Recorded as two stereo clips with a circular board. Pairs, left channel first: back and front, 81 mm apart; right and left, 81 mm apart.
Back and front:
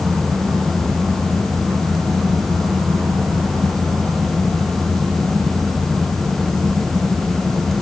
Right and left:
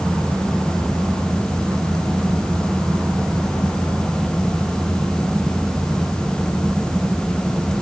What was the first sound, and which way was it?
Only background noise.